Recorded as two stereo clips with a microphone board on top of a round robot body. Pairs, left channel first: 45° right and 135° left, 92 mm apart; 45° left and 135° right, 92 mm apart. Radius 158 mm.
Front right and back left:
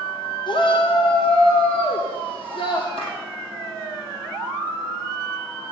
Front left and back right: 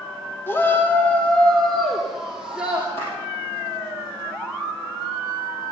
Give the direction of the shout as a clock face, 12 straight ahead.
1 o'clock.